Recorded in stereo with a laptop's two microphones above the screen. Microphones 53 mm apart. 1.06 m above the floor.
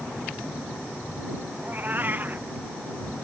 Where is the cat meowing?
35° right (ahead or behind).